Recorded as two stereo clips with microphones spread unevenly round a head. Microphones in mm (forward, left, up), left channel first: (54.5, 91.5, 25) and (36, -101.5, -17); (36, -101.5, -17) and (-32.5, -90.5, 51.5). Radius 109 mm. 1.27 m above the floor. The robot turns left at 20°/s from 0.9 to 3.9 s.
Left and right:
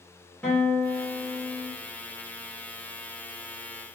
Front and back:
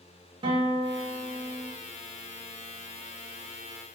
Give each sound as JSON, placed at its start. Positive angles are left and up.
{"t": 0.4, "sound": "a guitar", "azimuth_deg": 170, "distance_m": 1.3}